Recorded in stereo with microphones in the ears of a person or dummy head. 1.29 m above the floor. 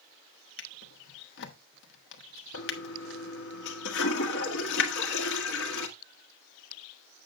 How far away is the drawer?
About 1.3 m.